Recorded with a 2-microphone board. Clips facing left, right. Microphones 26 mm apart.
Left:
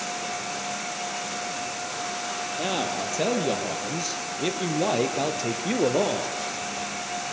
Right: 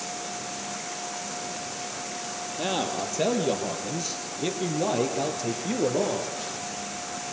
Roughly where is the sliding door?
No sliding door in this recording.